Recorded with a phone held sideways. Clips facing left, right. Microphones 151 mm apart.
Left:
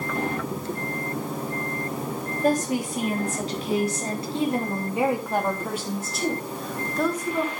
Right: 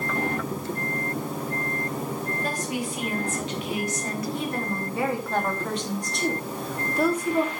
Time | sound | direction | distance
2.4 | a woman speaking | 45° left (ahead or behind) | 3.5 m